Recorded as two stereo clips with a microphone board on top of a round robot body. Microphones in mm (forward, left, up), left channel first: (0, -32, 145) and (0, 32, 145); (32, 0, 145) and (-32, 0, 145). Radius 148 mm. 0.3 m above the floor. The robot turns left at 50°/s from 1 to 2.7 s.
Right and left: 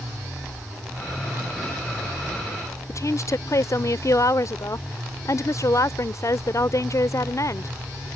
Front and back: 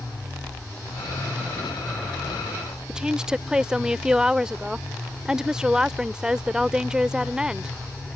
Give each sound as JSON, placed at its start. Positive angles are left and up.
{"t": 2.9, "sound": "a woman speaking", "azimuth_deg": -105}